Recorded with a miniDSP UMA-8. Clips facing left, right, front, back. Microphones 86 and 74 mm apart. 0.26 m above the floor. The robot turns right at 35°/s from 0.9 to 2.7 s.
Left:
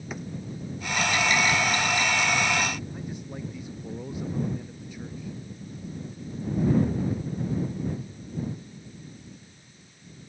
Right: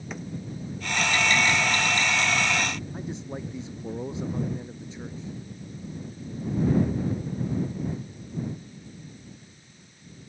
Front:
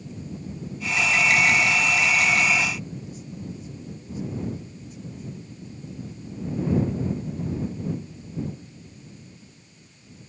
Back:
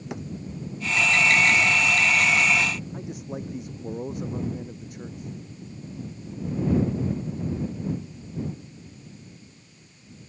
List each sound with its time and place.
0.1 s a drawer: 175° left
2.9 s a man speaking: 155° right